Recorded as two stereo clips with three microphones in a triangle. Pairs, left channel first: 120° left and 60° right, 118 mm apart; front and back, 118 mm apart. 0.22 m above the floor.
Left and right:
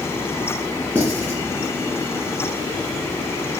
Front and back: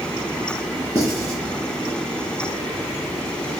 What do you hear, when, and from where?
0.9 s writing: 130° right, 2 m